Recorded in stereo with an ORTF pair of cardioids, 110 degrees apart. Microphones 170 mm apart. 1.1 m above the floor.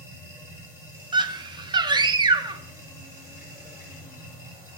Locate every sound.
0.0 s a machine running: 15° right, 2 m
1.1 s a scream: 25° right, 0.7 m